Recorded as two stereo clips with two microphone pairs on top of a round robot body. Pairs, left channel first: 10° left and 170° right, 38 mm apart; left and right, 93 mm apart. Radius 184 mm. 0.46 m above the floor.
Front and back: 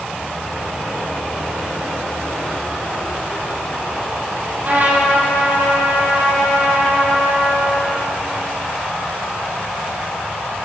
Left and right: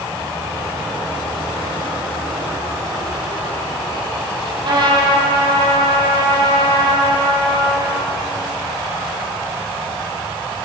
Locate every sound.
4.6 s a trumpet: 125° right, 8.5 m